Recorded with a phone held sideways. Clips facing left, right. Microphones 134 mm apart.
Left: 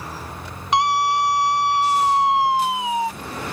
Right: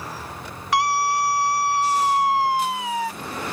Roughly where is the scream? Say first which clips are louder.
Left 2 dB; left.